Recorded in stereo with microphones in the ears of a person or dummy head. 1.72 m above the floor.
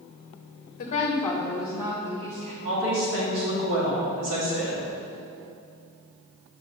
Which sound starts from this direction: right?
A woman speaking, at 2.6 s.